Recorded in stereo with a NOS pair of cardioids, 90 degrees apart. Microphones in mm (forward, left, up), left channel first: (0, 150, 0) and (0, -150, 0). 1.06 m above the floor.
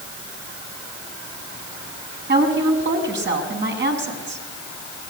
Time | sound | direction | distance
2.3 | a woman speaking | 35° right | 7 m